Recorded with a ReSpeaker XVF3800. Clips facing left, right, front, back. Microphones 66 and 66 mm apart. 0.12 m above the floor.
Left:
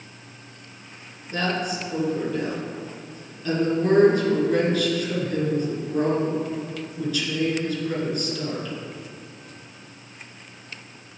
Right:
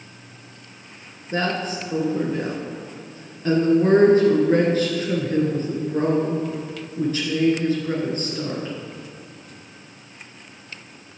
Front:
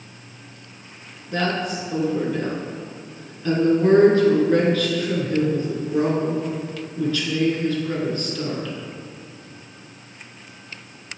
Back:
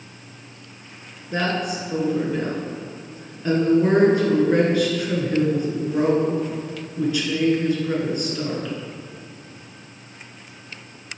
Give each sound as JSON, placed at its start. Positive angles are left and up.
{"t": 1.3, "sound": "a woman speaking", "azimuth_deg": -115, "distance_m": 1.8}